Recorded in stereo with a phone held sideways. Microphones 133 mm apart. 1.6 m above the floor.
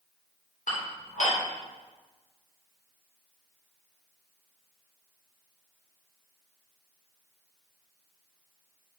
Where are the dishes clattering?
70° left (ahead or behind), 3.5 m.